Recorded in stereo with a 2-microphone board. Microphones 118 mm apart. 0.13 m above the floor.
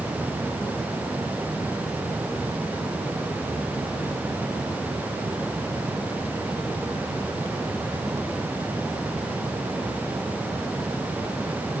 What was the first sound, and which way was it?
Only background noise.